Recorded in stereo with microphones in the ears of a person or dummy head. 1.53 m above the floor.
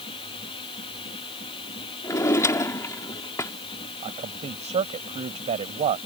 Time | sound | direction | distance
0.0 | a machine running | 30° left (ahead or behind) | ?
2.0 | a drawer | 15° left (ahead or behind) | ?
4.0 | a man speaking | 35° right (ahead or behind) | ?